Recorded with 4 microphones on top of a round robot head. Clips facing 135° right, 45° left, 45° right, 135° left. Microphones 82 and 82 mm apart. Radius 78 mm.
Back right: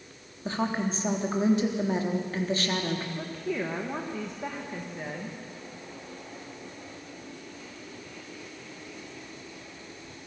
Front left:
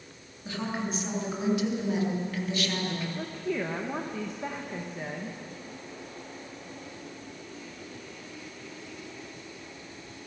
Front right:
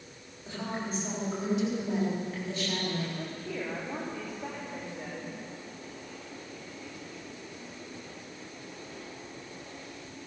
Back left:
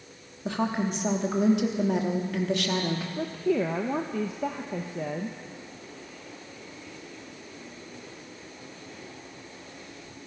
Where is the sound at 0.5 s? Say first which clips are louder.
Back right 4 dB, back left 8 dB; 165° left, 3.5 m.